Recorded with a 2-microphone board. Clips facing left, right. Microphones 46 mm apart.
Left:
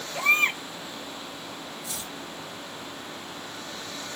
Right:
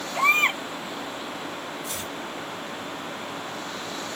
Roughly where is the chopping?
Right.